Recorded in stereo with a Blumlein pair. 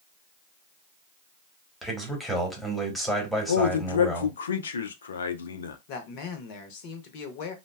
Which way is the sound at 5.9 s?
45° left.